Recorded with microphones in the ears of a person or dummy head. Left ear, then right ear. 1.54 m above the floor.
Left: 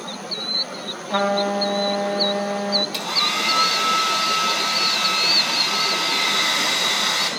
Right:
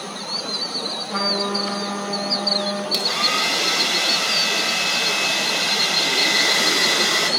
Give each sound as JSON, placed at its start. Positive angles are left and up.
{"t": 1.1, "sound": "a trumpet", "side_deg": 35, "distance_m": 1.4}
{"t": 2.9, "sound": "a hair dryer", "side_deg": -20, "distance_m": 2.0}